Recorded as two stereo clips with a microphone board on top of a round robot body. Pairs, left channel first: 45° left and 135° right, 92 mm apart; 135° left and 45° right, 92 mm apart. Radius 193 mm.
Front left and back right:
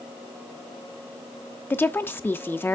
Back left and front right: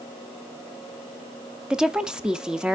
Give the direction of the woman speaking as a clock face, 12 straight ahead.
11 o'clock.